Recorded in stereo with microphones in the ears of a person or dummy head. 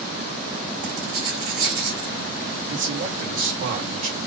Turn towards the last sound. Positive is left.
turn(degrees=-30)  # may be behind; listen again after turning